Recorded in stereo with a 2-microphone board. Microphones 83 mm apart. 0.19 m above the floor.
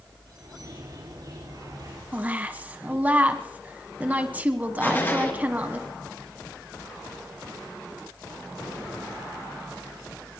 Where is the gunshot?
30° left (ahead or behind), 2.5 m.